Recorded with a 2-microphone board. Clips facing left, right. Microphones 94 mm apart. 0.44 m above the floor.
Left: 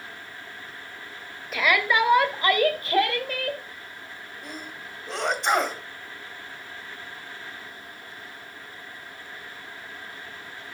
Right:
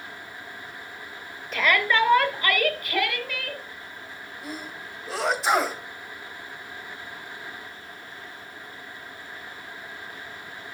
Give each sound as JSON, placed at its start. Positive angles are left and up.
{"t": 1.5, "sound": "a shout", "side_deg": 0, "distance_m": 1.9}
{"t": 4.4, "sound": "a sneeze", "side_deg": -5, "distance_m": 2.0}